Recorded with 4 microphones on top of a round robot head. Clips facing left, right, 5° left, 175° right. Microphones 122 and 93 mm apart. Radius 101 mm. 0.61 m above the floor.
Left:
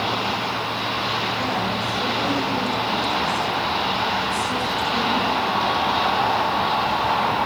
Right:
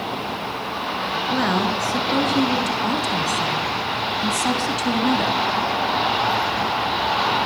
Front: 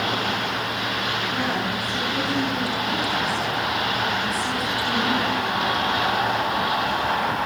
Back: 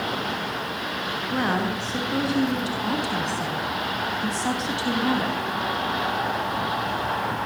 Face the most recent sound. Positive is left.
turn(degrees=-110)